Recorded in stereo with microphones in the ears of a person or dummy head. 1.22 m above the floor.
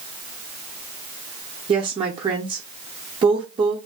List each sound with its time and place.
1.7 s a woman speaking: 25° right (ahead or behind), 0.5 m